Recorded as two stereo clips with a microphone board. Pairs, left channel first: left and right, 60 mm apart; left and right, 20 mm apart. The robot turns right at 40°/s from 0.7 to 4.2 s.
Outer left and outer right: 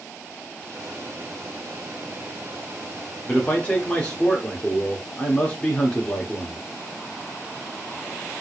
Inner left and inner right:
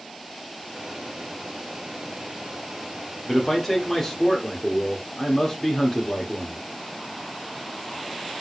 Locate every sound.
3.3 s a man speaking: 20° left (ahead or behind), 1.1 m; by 6.6 s 15° left (ahead or behind), 1.1 m